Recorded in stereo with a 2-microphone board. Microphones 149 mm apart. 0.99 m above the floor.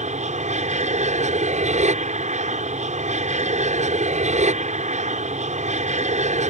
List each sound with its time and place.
0.0 s an aircraft: 55° right (ahead or behind)